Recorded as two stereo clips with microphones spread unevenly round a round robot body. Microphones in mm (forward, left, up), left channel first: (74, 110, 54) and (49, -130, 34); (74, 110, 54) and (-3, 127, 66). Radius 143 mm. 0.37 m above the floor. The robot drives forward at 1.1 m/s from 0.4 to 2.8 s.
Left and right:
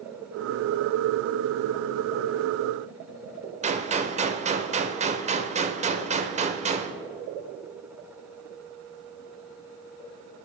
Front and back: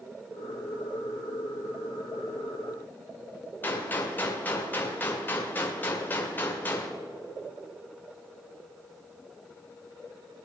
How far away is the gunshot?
About 1.5 m.